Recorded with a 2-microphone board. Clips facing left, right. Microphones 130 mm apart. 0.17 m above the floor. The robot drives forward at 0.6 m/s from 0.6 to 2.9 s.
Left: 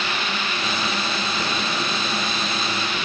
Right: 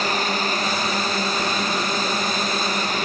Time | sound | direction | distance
0.0 | a drone | 40° right (ahead or behind) | ?